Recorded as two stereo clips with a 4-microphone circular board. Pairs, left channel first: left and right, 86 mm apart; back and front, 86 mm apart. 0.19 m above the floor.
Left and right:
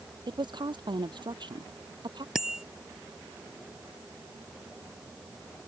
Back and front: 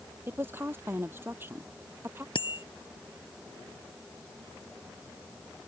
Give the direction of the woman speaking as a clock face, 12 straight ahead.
2 o'clock.